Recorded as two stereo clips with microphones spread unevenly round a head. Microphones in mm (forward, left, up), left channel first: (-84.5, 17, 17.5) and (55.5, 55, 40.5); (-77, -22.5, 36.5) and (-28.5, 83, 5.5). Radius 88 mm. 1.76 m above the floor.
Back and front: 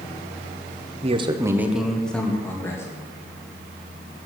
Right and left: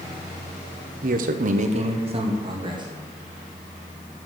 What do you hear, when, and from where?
1.0 s a man speaking: 50° left, 0.7 m; by 2.9 s 120° left, 1.7 m